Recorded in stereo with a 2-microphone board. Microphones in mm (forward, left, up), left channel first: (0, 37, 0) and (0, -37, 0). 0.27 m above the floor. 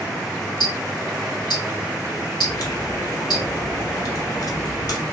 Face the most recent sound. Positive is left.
turn(degrees=50)  # may be behind; listen again after turning